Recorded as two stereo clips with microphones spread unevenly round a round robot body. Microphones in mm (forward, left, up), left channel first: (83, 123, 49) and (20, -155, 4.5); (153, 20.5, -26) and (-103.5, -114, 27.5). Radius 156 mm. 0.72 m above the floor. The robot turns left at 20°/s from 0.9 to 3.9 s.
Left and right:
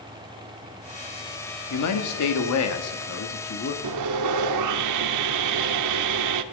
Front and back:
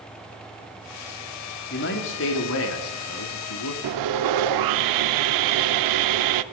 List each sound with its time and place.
1.7 s a man speaking: 70° left, 1.6 m; by 3.7 s 25° left, 1.6 m
3.8 s sawing: 140° right, 0.6 m